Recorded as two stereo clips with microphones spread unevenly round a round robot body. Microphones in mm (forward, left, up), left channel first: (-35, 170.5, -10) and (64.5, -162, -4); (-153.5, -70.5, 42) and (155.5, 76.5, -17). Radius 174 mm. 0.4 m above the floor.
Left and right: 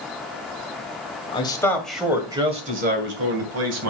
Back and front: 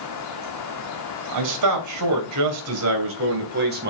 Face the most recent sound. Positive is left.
turn(degrees=-30)